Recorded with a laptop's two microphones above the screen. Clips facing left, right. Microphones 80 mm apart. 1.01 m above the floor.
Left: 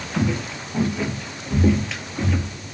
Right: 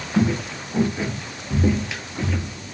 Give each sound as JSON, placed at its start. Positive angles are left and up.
{"t": 0.1, "sound": "footsteps", "side_deg": -35, "distance_m": 1.2}